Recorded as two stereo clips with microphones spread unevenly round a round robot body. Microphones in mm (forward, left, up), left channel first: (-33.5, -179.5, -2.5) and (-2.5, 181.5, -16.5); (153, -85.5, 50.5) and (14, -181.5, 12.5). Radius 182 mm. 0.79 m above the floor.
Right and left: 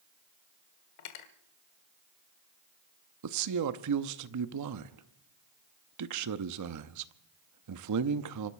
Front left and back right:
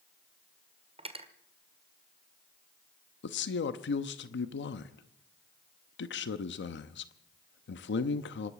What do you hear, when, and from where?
1.0 s cutlery clinking: 90° right, 1.6 m
3.2 s a man speaking: 45° left, 0.8 m